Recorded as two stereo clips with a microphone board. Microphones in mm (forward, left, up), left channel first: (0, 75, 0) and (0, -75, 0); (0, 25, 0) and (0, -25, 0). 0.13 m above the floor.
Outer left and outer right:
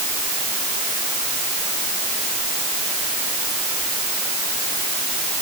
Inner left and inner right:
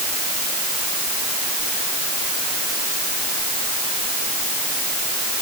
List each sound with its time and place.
Only background noise.